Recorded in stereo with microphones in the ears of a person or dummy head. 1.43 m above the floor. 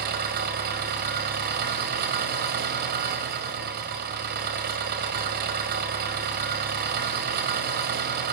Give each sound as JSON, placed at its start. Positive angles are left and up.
{"t": 0.0, "sound": "an engine running", "side_deg": -45, "distance_m": 1.8}